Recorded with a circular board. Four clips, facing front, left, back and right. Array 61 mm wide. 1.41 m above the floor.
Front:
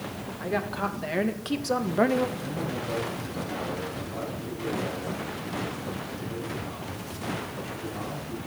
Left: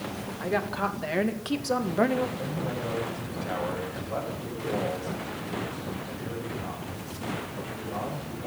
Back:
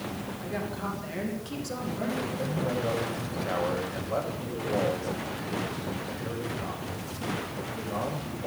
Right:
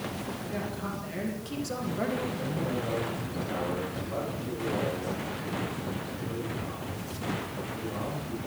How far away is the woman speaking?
About 2.5 m.